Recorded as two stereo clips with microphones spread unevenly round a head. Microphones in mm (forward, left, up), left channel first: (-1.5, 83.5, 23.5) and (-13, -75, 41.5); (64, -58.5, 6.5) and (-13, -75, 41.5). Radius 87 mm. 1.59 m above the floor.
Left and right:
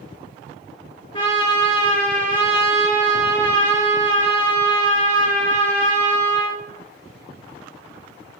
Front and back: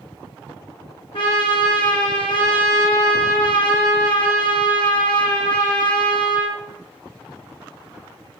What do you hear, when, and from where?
1.1 s a trumpet: 20° left, 4 m